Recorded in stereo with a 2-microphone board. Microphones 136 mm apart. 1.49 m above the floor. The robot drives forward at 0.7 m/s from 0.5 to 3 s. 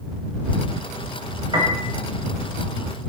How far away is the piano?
About 6.5 m.